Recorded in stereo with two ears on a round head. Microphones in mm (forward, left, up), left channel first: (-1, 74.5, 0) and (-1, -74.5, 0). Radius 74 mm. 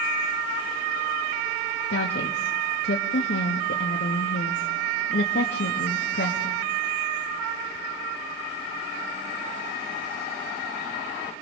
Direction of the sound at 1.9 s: 70° left (ahead or behind).